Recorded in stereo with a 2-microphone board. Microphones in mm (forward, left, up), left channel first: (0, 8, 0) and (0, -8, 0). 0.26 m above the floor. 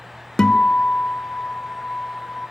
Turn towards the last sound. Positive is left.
turn(degrees=55)  # may be behind; listen again after turning